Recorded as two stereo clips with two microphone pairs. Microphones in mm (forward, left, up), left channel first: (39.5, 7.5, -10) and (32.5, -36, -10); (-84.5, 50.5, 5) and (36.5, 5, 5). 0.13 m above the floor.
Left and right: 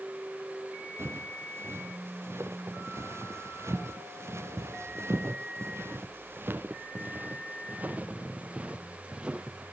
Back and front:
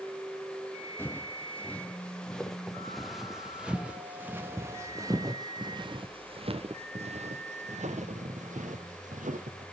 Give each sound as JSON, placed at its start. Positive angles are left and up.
{"t": 1.0, "sound": "footsteps", "azimuth_deg": -125, "distance_m": 3.5}